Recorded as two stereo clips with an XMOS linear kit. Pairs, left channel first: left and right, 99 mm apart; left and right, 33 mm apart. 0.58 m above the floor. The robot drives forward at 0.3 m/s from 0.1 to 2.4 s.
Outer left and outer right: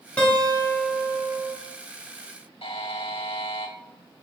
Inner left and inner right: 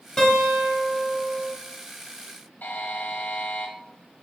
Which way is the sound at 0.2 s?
15° left (ahead or behind).